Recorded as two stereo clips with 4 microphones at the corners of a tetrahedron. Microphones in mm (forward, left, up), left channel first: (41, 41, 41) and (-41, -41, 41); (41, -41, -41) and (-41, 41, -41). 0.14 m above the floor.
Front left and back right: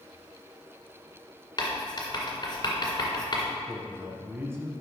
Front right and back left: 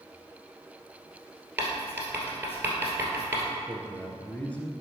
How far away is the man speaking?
About 1.3 m.